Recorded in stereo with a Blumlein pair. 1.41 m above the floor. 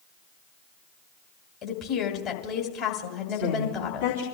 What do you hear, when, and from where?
1.6 s a woman speaking: 30° left, 2.5 m
3.3 s a woman speaking: 60° left, 3.5 m